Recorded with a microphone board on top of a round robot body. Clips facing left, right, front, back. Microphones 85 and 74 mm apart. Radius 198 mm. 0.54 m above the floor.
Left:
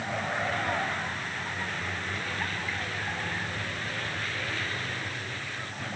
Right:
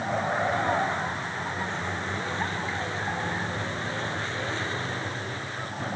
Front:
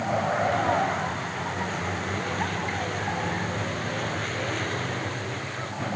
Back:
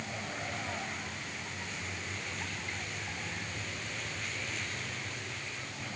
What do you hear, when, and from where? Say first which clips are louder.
0.0 s a vehicle: right 5 dB, front 15 dB; 25° right; by 6.0 s 30° right